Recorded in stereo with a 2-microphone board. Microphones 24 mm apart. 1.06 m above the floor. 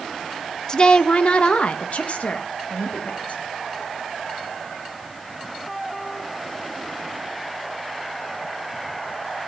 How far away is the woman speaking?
About 0.8 m.